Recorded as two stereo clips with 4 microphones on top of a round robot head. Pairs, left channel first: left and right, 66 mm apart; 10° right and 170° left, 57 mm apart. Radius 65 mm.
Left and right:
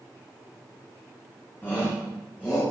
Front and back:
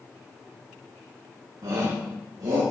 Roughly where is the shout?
Behind left.